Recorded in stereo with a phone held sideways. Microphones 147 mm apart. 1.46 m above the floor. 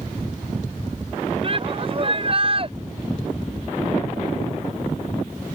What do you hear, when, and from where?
1.4 s a shout: 40° right (ahead or behind)